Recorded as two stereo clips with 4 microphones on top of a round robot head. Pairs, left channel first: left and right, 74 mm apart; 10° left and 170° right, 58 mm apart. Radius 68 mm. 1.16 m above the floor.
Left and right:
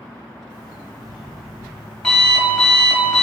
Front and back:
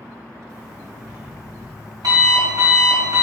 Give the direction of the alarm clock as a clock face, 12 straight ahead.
6 o'clock.